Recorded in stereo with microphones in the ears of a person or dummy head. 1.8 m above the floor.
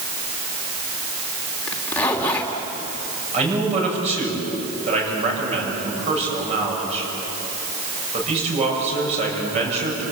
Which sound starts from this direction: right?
A man speaking, at 3.3 s.